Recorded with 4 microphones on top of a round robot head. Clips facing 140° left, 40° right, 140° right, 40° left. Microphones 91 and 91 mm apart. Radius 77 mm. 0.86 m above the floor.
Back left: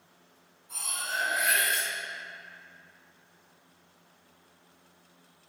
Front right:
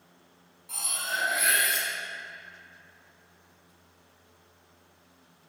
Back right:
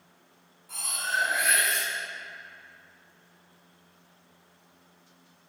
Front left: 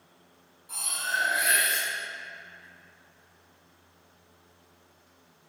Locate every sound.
0.7 s cutlery clinking: 35° right, 0.9 m